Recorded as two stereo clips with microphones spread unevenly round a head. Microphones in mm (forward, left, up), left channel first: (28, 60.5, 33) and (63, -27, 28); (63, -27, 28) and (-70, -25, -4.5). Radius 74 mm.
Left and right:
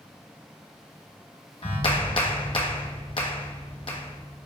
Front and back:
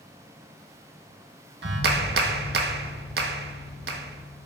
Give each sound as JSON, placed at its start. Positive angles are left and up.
{"t": 1.6, "sound": "a clap", "azimuth_deg": 165, "distance_m": 0.9}